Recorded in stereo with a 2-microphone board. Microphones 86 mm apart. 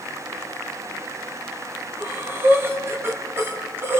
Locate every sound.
2.0 s breathing: 30° right (ahead or behind), 2.5 m